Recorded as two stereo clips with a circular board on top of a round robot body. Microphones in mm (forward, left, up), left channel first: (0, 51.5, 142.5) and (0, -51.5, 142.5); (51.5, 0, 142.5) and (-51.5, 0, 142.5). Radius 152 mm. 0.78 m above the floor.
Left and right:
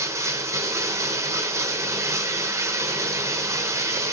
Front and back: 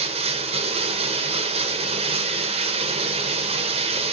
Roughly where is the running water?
Behind right.